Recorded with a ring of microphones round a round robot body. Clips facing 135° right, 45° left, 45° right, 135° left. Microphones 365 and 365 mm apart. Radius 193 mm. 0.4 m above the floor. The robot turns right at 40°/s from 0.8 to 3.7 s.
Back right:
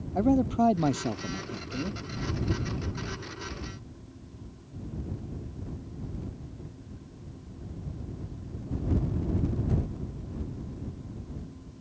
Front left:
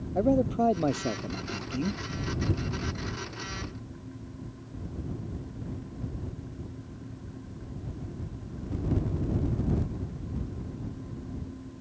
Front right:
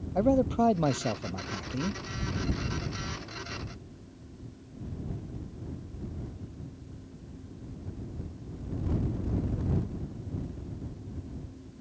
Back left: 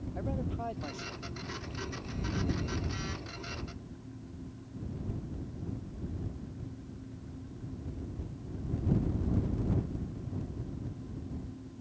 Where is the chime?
No chime in this recording.